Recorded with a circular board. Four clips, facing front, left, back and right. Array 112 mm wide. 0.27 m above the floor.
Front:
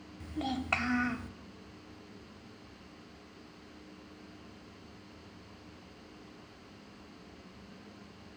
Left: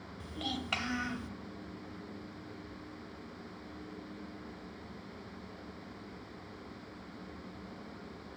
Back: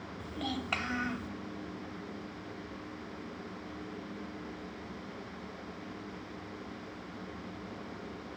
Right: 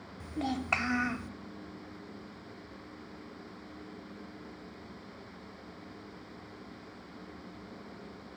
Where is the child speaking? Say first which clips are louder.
Right 6 dB, front 2 dB; 70° right, 0.5 m.